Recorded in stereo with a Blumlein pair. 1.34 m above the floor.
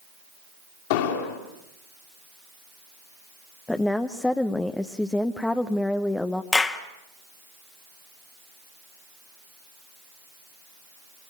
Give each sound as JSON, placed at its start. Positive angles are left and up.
{"t": 0.9, "sound": "an explosion", "azimuth_deg": 50, "distance_m": 4.0}
{"t": 3.7, "sound": "a woman speaking", "azimuth_deg": 5, "distance_m": 0.9}
{"t": 6.5, "sound": "a clap", "azimuth_deg": 15, "distance_m": 1.8}